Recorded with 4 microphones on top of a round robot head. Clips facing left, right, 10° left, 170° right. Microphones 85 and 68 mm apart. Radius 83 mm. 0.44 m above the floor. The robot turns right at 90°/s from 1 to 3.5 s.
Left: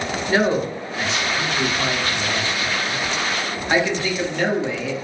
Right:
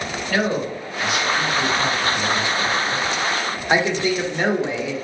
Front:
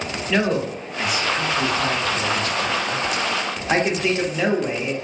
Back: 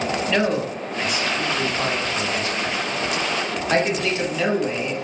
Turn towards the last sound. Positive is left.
turn(degrees=-45)